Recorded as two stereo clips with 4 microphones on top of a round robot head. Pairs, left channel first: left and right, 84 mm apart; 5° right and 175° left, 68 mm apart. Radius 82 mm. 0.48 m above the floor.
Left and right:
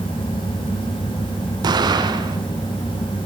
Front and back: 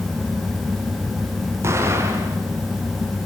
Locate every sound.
1.6 s an explosion: 125° right, 4.5 m